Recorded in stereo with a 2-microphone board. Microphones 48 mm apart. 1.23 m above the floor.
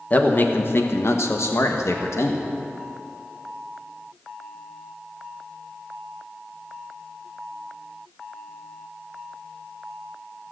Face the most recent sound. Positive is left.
turn(degrees=80)